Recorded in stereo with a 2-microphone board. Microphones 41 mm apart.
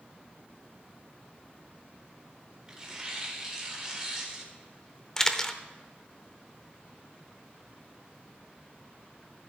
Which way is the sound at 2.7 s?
15° right (ahead or behind).